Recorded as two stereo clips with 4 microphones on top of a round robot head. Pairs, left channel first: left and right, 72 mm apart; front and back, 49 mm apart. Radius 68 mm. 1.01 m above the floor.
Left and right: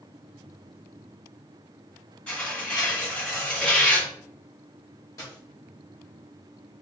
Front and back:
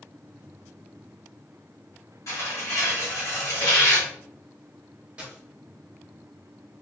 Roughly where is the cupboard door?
I don't hear a cupboard door.